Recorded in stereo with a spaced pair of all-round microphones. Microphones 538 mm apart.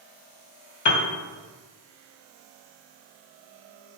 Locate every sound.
0.8 s a piano: 55° left (ahead or behind), 0.6 m